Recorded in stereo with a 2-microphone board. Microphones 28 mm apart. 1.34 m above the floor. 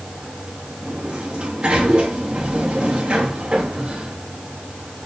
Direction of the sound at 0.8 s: 45° right (ahead or behind).